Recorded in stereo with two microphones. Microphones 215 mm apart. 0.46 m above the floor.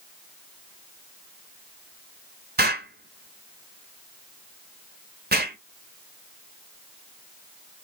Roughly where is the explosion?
Right.